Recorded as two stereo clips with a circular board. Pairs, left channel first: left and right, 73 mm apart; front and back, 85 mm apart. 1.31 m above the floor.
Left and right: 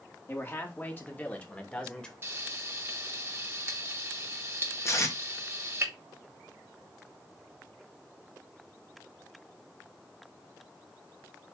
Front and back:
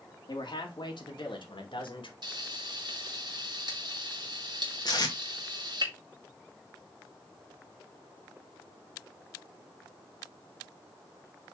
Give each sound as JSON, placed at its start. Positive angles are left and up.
{"t": 0.3, "sound": "a man speaking", "azimuth_deg": 30, "distance_m": 2.5}
{"t": 2.2, "sound": "frying", "azimuth_deg": -145, "distance_m": 2.5}
{"t": 4.8, "sound": "tape being pulled", "azimuth_deg": 40, "distance_m": 2.0}